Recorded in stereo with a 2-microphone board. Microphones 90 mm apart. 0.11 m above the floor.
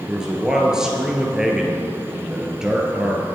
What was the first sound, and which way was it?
A man speaking, 5° right (ahead or behind).